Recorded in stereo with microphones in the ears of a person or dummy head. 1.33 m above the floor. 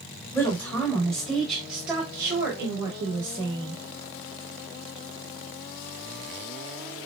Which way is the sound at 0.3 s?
15° left (ahead or behind).